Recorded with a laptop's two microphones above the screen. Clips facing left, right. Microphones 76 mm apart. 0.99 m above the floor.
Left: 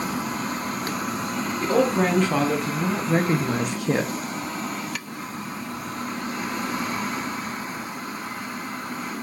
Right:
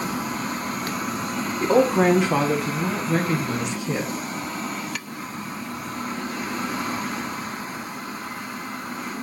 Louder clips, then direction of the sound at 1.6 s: Right 3 dB; 20° right (ahead or behind).